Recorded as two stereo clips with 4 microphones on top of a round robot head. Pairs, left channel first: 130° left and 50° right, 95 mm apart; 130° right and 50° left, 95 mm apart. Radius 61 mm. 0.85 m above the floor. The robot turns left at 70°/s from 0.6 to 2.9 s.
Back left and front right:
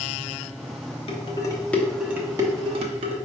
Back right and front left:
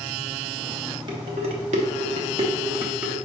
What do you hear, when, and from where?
1.1 s dishes clattering: 100° left, 0.8 m; by 3.1 s 30° right, 0.8 m